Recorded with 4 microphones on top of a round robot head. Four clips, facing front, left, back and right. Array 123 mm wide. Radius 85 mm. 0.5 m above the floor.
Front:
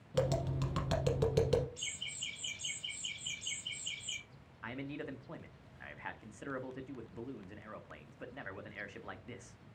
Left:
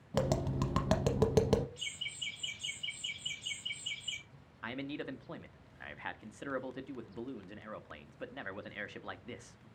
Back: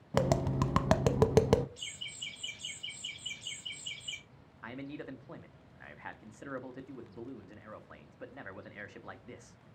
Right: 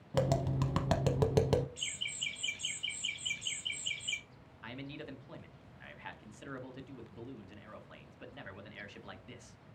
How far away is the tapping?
About 0.6 m.